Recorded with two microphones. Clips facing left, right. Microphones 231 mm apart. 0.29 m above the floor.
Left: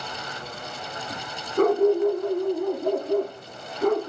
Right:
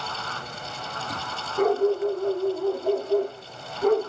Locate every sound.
1.6 s a dog barking: 60° left (ahead or behind), 1.2 m; by 4.1 s 70° left (ahead or behind), 2 m